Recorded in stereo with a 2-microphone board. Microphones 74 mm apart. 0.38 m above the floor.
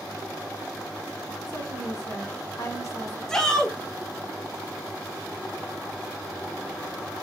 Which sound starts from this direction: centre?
A shout, at 3.3 s.